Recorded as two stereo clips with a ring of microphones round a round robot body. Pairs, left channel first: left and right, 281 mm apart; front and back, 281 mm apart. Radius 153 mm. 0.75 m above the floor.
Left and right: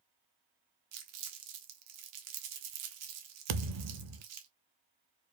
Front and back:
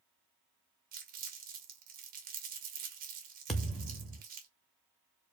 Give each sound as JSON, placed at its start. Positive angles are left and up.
{"t": 0.9, "sound": "crumpling", "azimuth_deg": -120, "distance_m": 1.2}
{"t": 3.5, "sound": "a thud", "azimuth_deg": -90, "distance_m": 0.6}